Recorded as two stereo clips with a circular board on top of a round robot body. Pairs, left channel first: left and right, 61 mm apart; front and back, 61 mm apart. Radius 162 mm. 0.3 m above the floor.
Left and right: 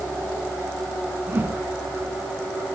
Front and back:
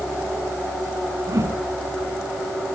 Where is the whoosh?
145° right, 4.5 m.